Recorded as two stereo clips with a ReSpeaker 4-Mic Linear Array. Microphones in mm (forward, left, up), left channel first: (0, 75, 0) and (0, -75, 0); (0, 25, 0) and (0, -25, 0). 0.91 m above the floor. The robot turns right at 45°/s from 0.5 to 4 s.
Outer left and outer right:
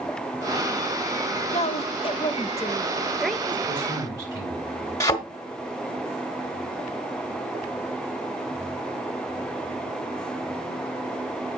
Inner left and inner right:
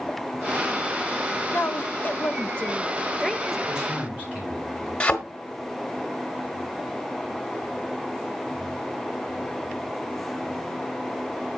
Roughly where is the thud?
Left.